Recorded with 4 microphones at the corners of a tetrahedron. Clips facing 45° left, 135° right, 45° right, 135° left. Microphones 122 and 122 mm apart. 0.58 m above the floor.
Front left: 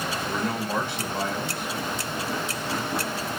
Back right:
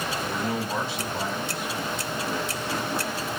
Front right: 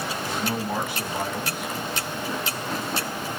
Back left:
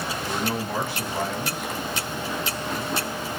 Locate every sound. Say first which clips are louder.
0.2 s a man speaking: front left 1 dB, back left 1 dB; 30° left, 2.5 m